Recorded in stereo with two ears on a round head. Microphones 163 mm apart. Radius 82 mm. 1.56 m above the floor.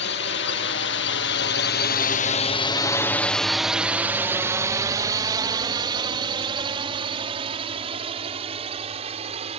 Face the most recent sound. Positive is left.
turn(degrees=-35)  # may be behind; listen again after turning